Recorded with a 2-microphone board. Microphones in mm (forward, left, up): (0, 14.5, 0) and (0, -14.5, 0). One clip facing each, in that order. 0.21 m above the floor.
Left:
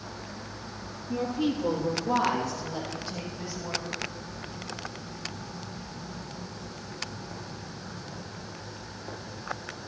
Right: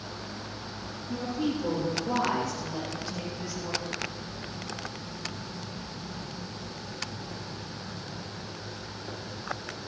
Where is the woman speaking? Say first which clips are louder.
Left 2 dB; 20° left (ahead or behind), 4.5 m; by 3.9 s 5° left (ahead or behind), 8 m.